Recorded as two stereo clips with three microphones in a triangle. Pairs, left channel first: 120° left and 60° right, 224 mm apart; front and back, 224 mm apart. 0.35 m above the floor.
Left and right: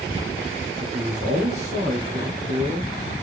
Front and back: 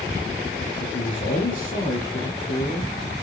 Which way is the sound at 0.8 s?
20° right.